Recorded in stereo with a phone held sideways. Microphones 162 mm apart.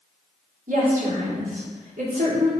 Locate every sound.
0.7 s a woman speaking: 70° right (ahead or behind), 2.5 m